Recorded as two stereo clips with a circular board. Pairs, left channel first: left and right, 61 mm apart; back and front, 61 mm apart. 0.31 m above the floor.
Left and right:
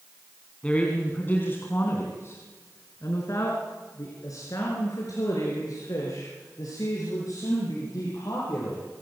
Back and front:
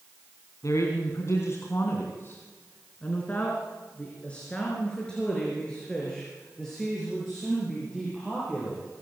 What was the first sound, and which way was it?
A man speaking, 160° left.